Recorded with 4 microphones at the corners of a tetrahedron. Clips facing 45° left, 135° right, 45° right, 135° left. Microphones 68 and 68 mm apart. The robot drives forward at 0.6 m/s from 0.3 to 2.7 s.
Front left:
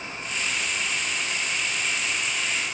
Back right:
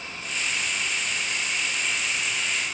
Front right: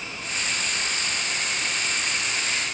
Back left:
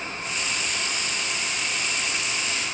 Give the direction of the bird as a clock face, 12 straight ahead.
I don't hear a bird.